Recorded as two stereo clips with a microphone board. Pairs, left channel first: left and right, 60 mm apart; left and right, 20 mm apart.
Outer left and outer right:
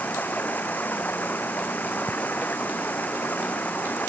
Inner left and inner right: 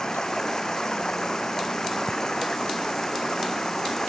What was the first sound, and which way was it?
Running water, 30° left (ahead or behind).